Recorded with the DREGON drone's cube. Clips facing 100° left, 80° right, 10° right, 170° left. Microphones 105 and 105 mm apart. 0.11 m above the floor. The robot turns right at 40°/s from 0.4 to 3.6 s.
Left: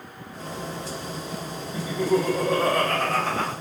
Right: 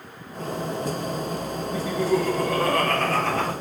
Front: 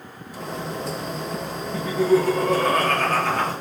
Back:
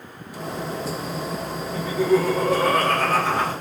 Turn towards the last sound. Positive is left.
turn(degrees=135)